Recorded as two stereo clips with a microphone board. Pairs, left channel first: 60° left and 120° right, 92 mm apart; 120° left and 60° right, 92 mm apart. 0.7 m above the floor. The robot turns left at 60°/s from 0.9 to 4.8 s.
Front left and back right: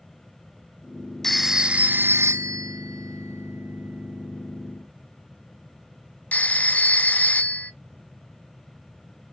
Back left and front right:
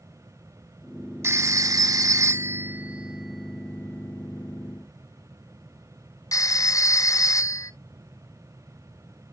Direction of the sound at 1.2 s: 20° right.